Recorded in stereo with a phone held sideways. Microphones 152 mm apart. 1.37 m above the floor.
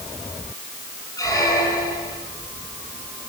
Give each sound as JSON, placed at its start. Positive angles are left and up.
{"t": 1.2, "sound": "a squeak", "side_deg": 20, "distance_m": 8.5}